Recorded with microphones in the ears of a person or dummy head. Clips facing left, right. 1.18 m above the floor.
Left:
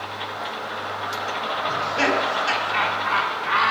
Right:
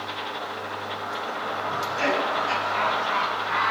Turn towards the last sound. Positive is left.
turn(degrees=80)